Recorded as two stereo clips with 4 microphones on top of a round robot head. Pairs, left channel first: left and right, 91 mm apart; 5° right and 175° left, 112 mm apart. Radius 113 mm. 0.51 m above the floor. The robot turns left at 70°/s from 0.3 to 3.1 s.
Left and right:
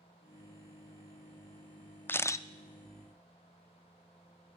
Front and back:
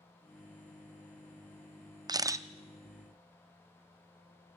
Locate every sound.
2.1 s a camera shutter: 145° left, 0.6 m; by 2.5 s 120° left, 0.6 m